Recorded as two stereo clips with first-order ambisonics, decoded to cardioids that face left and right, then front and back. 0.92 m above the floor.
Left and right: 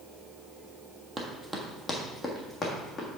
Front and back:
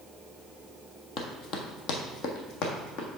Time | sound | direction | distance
1.2 | running footsteps | 20° right | 1.1 m